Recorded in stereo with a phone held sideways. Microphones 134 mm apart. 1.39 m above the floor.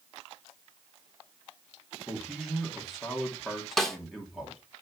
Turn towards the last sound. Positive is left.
turn(degrees=5)  # may be behind; listen again after turning